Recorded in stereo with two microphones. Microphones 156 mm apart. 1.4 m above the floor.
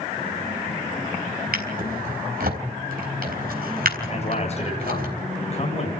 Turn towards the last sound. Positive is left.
turn(degrees=45)  # may be behind; listen again after turning